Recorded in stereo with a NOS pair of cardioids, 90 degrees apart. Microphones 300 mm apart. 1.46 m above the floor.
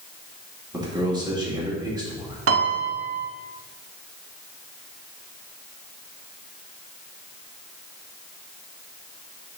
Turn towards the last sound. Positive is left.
turn(degrees=-45)